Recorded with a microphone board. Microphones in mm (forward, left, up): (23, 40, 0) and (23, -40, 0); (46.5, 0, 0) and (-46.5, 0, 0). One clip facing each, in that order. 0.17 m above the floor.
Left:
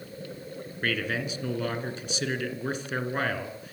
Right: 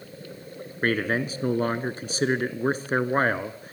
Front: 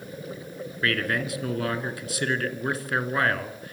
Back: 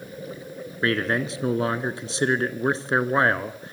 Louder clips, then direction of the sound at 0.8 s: Right 5 dB, back 3 dB; 125° right.